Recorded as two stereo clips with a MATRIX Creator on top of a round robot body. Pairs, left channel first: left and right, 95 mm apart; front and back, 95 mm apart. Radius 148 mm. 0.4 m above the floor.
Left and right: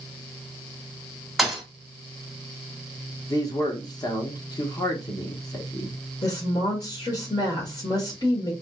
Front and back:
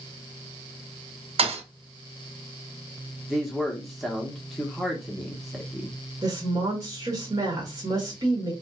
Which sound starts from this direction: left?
A man speaking, at 3.3 s.